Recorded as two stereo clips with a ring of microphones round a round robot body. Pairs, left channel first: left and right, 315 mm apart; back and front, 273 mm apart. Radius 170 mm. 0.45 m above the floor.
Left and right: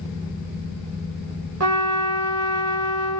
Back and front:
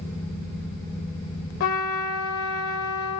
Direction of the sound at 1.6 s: 135° right.